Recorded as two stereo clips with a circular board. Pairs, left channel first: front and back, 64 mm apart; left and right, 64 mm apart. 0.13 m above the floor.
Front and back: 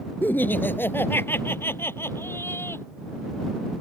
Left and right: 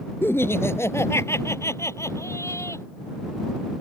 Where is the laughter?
50° left.